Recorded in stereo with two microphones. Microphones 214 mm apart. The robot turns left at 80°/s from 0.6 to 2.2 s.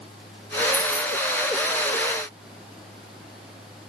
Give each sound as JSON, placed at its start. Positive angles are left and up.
{"t": 0.7, "sound": "keys jangling", "side_deg": -10, "distance_m": 0.7}